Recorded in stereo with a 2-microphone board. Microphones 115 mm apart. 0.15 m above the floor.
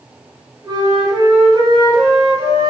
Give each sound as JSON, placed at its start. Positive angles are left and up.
{"t": 0.6, "sound": "a flute", "side_deg": -35, "distance_m": 1.2}